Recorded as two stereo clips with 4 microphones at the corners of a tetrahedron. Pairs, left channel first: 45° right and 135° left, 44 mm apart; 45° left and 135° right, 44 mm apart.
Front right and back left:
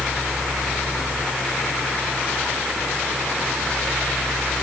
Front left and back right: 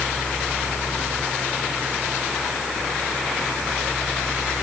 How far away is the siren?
No siren in this recording.